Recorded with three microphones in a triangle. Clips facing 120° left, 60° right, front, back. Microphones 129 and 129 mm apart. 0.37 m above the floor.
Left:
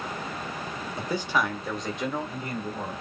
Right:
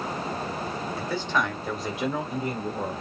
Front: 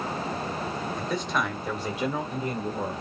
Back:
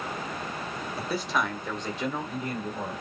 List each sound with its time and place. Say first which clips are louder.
1.0 s a man speaking: left 1 dB, back 1 dB; 110° left, 1.4 m; by 3.0 s 40° right, 1.7 m